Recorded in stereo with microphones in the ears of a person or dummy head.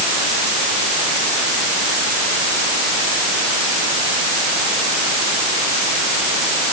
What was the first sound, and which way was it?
Only background noise.